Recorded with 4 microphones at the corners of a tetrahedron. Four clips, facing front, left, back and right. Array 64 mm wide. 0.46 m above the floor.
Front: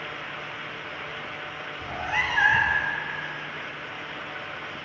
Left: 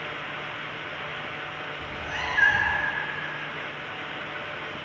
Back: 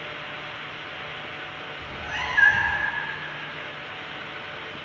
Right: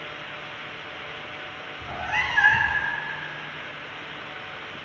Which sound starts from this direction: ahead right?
A cat meowing, at 1.8 s.